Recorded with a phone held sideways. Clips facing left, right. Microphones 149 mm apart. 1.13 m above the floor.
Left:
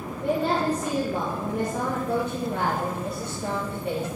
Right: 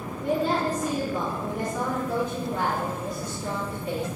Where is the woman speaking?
65° left (ahead or behind), 1.6 m.